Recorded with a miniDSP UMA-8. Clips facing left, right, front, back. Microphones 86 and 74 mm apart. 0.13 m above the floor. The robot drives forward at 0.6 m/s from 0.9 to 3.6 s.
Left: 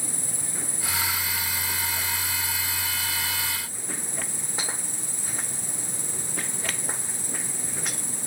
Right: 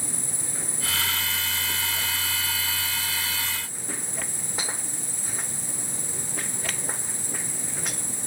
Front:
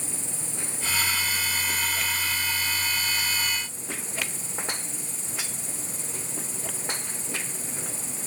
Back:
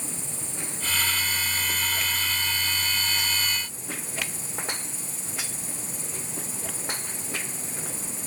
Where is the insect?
150° right, 8.5 m; by 8.3 s 155° right, 10 m.